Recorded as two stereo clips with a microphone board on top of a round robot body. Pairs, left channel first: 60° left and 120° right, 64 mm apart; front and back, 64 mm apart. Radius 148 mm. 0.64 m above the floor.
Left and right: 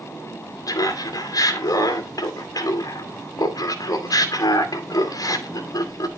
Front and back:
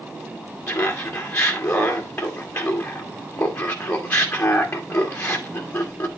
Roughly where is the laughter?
Ahead left.